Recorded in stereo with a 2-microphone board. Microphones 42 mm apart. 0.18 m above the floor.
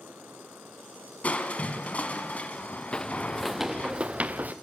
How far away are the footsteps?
About 0.8 m.